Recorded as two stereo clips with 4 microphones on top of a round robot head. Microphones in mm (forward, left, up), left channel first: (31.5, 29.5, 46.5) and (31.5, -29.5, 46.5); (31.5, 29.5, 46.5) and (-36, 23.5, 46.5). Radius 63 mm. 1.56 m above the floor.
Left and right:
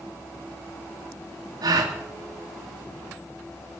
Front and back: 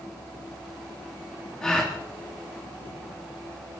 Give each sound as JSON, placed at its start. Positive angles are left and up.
{"t": 1.6, "sound": "a gasp", "azimuth_deg": -80, "distance_m": 2.5}